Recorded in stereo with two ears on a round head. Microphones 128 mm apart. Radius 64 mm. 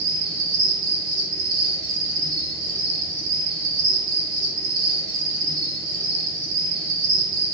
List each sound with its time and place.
0.0 s an insect: 50° right (ahead or behind), 1.5 m